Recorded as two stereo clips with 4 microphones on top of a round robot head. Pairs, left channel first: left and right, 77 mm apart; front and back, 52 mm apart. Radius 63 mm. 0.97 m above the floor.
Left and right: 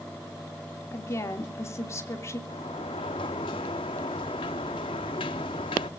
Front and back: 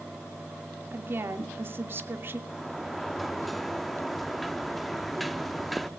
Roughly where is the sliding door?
Left.